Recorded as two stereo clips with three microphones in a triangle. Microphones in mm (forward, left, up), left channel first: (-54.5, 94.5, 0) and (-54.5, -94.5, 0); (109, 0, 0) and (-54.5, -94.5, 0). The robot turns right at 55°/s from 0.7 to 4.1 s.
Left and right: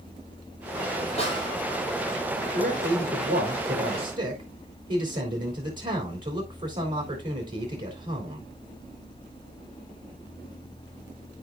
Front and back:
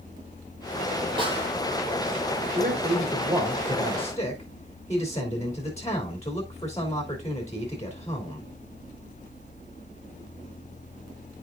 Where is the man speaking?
130° right, 3 m; by 8.5 s 45° right, 3 m.